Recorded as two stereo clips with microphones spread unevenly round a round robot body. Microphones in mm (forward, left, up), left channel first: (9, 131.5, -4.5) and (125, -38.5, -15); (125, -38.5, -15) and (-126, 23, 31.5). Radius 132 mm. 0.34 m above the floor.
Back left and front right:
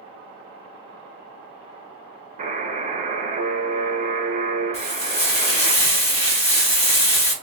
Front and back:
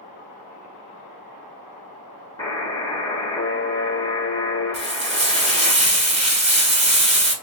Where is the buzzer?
65° right, 0.7 m.